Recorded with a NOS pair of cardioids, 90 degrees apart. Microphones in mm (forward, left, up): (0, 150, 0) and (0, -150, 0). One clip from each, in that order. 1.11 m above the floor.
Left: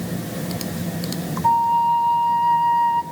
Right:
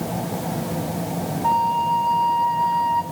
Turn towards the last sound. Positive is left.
turn(degrees=-5)